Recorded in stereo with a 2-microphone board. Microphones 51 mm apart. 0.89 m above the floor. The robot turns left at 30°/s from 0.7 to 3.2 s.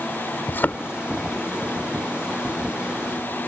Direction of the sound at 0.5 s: 40° left (ahead or behind).